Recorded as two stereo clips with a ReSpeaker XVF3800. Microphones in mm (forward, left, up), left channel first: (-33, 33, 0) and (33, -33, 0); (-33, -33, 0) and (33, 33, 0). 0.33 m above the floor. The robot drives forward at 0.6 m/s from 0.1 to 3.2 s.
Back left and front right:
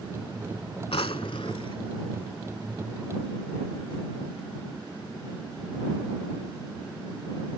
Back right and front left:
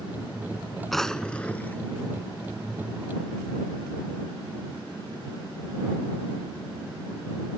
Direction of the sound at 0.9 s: 135° left.